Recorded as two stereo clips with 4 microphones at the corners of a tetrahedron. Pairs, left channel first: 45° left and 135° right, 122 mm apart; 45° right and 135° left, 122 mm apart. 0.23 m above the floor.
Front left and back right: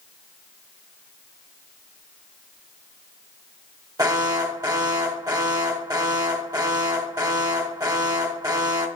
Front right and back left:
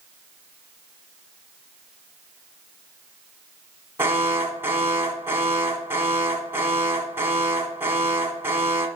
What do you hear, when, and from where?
4.0 s an alarm: 170° right, 1.3 m